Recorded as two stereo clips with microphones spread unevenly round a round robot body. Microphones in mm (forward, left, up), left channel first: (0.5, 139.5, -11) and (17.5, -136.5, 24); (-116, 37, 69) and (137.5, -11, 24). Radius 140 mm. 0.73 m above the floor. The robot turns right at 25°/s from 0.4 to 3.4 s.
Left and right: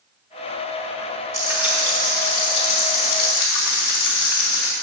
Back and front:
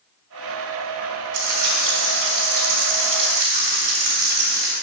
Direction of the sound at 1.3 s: 5° right.